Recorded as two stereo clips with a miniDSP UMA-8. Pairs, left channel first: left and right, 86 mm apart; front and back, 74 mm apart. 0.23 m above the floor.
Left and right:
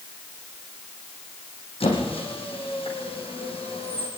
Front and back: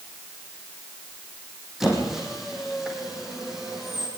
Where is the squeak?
95° left, 4.5 m.